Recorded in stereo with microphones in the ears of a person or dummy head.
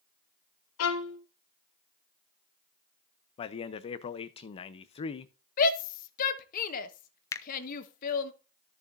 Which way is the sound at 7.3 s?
20° left (ahead or behind).